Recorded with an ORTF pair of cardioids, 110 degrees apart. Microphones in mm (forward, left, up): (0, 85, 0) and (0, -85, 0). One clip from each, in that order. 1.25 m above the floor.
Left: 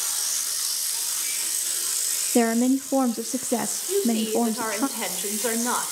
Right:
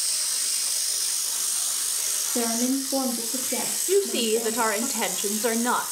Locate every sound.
2.4 s a woman speaking: 60° left, 0.7 m
3.9 s a woman speaking: 25° right, 1.9 m